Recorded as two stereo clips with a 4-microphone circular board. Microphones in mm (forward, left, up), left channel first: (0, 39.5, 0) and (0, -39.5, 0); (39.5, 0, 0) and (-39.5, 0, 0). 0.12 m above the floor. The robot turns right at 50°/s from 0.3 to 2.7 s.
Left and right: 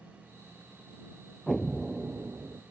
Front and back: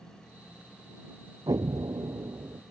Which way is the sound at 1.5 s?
170° left.